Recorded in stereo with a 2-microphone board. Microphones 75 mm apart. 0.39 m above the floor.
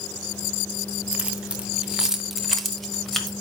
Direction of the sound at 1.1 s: 15° right (ahead or behind).